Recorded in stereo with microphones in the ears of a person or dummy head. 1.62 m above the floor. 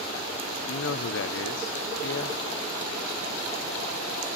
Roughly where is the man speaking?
Left.